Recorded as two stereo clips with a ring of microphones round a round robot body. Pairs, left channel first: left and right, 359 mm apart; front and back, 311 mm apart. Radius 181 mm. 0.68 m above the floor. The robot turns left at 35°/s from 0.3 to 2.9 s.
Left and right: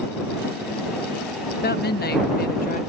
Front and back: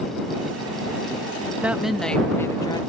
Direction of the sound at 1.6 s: 100° left.